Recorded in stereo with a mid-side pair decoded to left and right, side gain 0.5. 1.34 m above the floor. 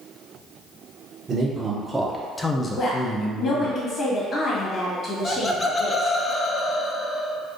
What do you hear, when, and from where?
1.3 s a man speaking: 35° right, 0.8 m; by 3.7 s 65° left, 0.9 m
2.7 s a woman speaking: 50° left, 1.7 m
5.2 s laughter: 25° left, 0.7 m